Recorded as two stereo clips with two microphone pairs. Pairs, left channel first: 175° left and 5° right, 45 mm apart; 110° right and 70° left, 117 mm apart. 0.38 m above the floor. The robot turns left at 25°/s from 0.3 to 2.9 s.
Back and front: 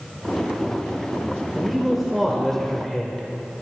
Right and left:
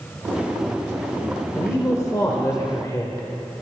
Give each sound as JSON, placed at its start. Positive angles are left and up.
{"t": 1.6, "sound": "a man speaking", "azimuth_deg": -80, "distance_m": 1.1}